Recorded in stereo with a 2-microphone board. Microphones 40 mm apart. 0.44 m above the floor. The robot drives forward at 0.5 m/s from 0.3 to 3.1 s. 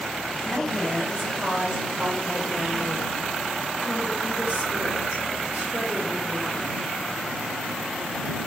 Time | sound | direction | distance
0.5 | a woman speaking | 15° right (ahead or behind) | 2.5 m